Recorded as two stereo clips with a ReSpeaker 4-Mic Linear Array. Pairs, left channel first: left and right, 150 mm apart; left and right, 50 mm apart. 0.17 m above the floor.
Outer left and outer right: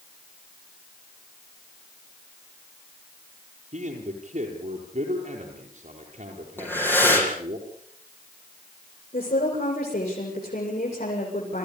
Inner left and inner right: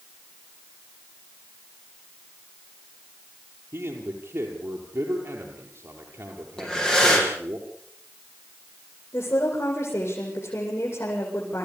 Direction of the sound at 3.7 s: 50° right (ahead or behind).